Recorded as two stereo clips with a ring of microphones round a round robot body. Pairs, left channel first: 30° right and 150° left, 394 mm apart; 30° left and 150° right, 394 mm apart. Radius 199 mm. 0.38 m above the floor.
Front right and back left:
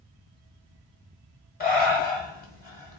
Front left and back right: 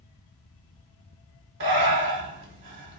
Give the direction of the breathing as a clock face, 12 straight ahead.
3 o'clock.